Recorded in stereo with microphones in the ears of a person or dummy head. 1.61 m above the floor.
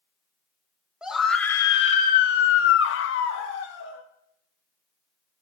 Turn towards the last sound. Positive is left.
turn(degrees=80)